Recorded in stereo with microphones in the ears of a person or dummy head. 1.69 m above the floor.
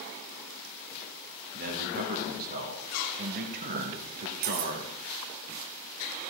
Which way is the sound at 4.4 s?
60° right (ahead or behind).